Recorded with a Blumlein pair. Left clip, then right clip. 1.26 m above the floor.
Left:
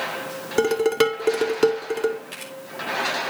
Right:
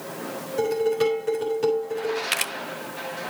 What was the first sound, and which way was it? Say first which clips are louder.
Dishes clattering: left 3 dB; 35° left.